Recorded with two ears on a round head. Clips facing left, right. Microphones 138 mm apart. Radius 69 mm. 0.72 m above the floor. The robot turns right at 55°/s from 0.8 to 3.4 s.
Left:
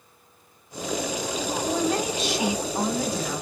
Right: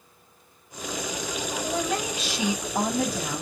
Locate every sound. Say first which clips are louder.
1.6 s a woman speaking: left 3 dB; 170° right, 4 m; by 3.4 s 75° right, 4 m